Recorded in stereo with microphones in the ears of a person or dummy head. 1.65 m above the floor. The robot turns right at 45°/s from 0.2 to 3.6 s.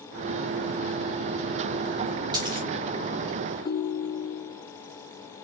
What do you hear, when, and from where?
2.3 s a dropped coin: 20° right (ahead or behind), 1.7 m; by 2.7 s 30° right (ahead or behind), 1.7 m
3.6 s a ringtone: 20° left (ahead or behind), 0.7 m